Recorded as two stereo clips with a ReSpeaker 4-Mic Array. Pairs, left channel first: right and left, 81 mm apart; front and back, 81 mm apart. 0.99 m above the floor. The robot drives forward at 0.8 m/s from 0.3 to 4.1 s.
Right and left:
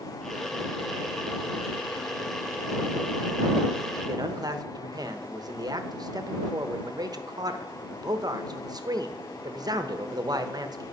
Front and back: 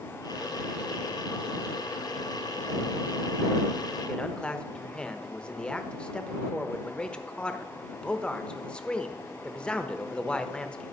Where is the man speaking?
75° left, 1.0 m.